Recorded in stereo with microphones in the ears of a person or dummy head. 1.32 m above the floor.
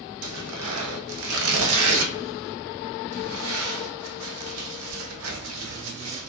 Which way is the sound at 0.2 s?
80° right.